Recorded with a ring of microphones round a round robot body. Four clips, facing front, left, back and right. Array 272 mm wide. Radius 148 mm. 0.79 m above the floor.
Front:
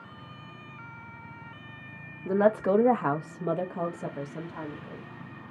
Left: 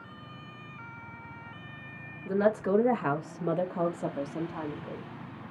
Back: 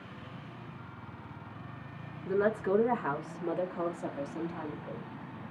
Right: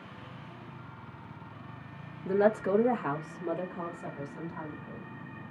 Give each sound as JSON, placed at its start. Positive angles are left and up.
{"t": 2.2, "sound": "a woman speaking", "azimuth_deg": -25, "distance_m": 1.3}